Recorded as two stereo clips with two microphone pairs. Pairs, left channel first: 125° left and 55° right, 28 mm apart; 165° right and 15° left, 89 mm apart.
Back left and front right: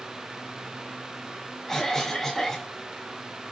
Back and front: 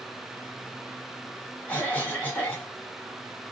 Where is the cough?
175° left, 1.2 m.